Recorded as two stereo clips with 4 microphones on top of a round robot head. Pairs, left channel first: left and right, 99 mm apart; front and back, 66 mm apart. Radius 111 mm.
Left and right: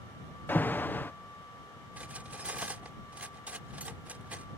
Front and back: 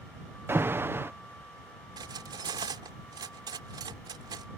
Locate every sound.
0.5 s an alarm: 150° left
2.0 s cutlery clinking: 170° right